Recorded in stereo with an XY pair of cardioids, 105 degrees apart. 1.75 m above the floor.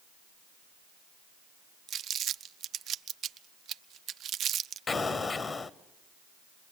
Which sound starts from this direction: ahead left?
An explosion, at 4.9 s.